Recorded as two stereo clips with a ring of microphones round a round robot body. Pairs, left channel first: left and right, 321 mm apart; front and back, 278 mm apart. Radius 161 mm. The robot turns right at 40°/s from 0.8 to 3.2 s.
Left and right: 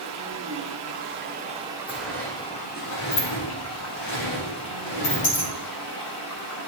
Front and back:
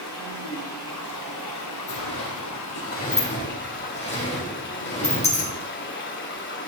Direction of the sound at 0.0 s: 50° right.